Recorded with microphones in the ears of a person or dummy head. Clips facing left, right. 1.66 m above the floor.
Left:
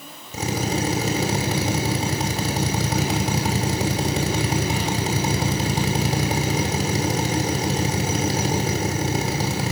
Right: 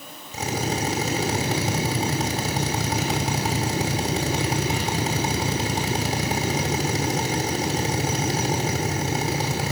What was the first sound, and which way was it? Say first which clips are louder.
A drill: left 2 dB; 85° left.